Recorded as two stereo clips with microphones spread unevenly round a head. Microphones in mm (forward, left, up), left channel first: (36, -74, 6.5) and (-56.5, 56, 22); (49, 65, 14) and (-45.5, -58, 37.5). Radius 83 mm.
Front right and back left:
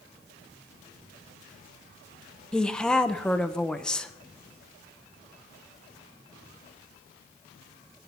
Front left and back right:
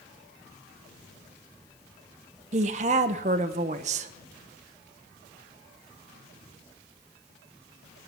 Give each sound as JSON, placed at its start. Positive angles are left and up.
{"t": 2.5, "sound": "a woman speaking", "azimuth_deg": -145, "distance_m": 0.7}